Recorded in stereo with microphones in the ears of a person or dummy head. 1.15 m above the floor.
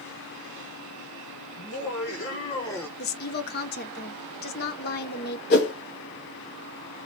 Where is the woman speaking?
50° left (ahead or behind), 0.7 m.